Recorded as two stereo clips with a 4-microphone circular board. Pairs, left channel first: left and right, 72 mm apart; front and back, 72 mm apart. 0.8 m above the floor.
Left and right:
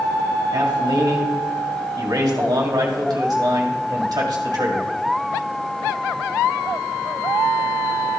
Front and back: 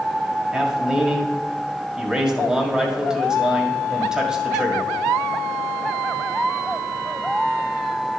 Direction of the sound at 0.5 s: 100° right.